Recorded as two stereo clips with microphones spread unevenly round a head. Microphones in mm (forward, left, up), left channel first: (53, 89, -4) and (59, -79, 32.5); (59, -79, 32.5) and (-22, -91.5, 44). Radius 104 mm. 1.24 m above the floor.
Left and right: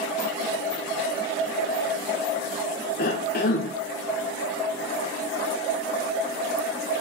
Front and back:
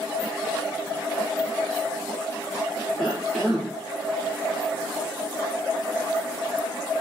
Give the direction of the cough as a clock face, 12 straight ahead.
9 o'clock.